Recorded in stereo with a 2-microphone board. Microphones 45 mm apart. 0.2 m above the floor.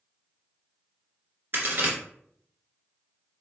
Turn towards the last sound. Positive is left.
turn(degrees=-55)  # may be behind; listen again after turning